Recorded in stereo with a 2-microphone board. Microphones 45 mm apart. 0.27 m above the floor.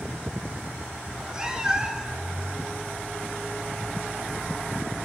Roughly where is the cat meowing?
Centre.